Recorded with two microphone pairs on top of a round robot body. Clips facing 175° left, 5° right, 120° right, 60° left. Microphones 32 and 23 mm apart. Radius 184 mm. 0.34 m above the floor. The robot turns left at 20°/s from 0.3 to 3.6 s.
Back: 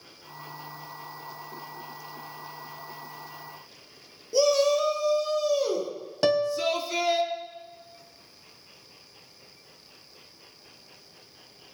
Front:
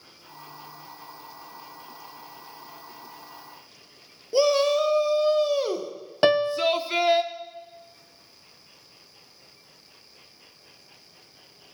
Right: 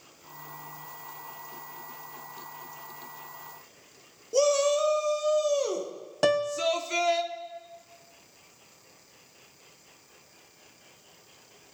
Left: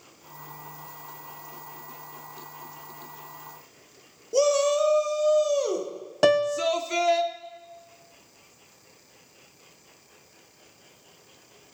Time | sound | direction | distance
4.3 | a shout | 15° right | 1.5 m
6.2 | a piano | 10° left | 0.7 m